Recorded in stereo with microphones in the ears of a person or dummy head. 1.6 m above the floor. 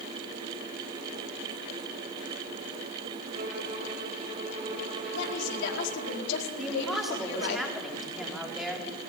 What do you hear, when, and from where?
3.3 s a violin: 40° right (ahead or behind), 5 m
5.1 s a woman speaking: 65° left (ahead or behind), 5 m
6.6 s a woman speaking: centre (ahead or behind), 4 m